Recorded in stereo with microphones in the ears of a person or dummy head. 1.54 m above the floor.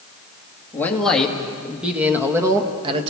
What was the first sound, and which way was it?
A man speaking, 10° left (ahead or behind).